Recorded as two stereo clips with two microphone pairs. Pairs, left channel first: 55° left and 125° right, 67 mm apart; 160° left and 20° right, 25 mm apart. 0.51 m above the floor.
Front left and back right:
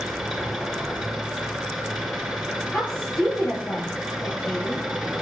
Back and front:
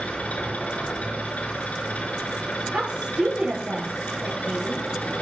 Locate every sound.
0.0 s an engine running: 145° left, 4.5 m
2.7 s a woman speaking: 10° right, 2.5 m